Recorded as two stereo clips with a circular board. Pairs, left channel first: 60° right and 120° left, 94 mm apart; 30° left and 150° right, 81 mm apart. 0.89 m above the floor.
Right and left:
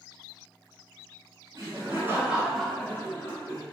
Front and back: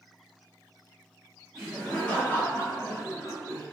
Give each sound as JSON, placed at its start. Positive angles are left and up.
{"t": 1.6, "sound": "laughter", "azimuth_deg": 115, "distance_m": 0.9}